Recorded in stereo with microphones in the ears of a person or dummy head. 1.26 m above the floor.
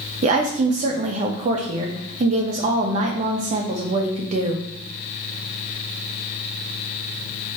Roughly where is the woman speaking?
Right.